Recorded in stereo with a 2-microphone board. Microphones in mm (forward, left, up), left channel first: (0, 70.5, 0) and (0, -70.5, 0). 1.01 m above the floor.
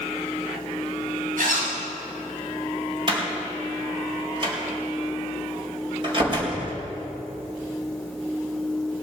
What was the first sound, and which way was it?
A zipper, 80° right.